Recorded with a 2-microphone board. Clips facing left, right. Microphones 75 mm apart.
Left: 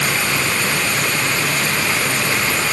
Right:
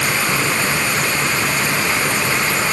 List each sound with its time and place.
Only background noise.